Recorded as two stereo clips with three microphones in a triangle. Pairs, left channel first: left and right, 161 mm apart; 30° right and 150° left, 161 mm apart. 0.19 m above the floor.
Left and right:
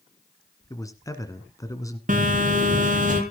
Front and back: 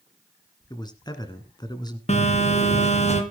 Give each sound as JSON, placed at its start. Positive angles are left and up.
{"t": 0.7, "sound": "a man speaking", "azimuth_deg": 25, "distance_m": 2.0}
{"t": 2.1, "sound": "a phone buzzing", "azimuth_deg": -70, "distance_m": 3.0}